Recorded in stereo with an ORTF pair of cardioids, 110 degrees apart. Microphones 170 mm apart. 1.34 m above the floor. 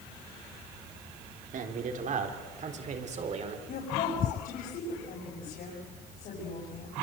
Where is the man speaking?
50° right, 3.5 m; by 3.6 s 40° right, 4.5 m.